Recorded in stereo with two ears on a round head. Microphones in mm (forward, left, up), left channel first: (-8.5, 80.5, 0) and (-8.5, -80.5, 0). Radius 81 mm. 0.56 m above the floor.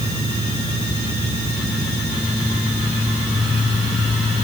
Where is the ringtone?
I don't hear a ringtone.